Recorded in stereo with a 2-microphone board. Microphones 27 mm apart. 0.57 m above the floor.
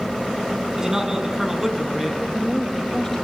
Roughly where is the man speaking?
Centre.